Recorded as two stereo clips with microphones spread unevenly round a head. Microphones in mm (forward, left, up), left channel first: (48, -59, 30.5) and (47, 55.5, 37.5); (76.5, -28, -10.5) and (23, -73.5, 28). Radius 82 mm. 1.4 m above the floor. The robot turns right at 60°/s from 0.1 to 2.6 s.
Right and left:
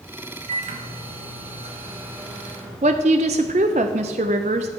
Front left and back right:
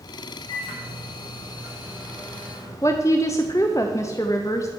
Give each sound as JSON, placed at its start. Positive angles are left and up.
{"t": 0.5, "sound": "a microwave", "azimuth_deg": 65, "distance_m": 1.4}
{"t": 2.8, "sound": "a woman speaking", "azimuth_deg": 125, "distance_m": 0.5}